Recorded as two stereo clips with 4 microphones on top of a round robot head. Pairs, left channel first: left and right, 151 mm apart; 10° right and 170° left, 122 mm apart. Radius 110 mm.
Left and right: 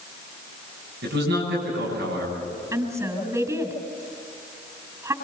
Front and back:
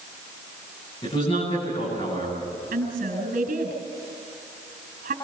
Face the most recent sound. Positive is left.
turn(degrees=-160)